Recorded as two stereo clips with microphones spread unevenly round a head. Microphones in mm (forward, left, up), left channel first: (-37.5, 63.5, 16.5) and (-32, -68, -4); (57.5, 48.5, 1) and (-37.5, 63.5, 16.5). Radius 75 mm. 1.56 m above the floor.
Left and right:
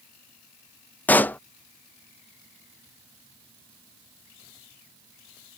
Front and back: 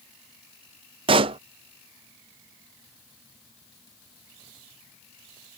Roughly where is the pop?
Behind.